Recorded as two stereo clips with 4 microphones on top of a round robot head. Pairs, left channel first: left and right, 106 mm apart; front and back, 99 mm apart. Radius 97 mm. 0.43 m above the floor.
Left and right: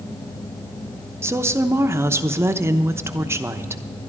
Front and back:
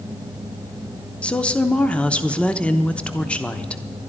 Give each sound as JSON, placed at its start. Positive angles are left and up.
{"t": 1.2, "sound": "a woman speaking", "azimuth_deg": -65, "distance_m": 0.8}